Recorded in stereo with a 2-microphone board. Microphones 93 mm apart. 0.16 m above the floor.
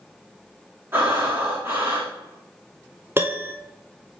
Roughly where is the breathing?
Right.